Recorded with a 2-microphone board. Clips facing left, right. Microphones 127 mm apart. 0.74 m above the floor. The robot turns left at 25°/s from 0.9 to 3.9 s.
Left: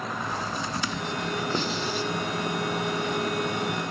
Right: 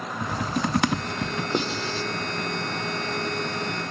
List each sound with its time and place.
0.2 s typing on a keyboard: 60° right (ahead or behind), 1.1 m; by 1.4 s 65° right (ahead or behind), 1.1 m
1.5 s writing: 20° right (ahead or behind), 2 m; by 2.1 s 30° right (ahead or behind), 2 m